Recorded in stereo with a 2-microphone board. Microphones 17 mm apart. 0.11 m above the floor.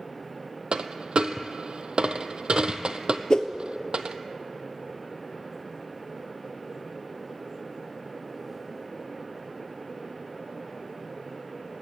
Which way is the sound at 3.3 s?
50° left (ahead or behind).